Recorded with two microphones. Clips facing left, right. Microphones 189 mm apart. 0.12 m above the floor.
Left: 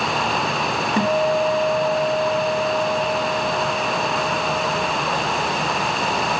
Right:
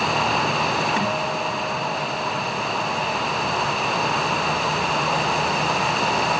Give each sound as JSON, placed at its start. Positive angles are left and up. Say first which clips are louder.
{"t": 1.0, "sound": "a guitar", "louder": "left 7 dB", "side_deg": 40, "distance_m": 1.4}